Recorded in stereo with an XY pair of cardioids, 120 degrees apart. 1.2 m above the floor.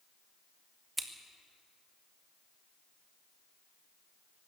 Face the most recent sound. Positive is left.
turn(degrees=-10)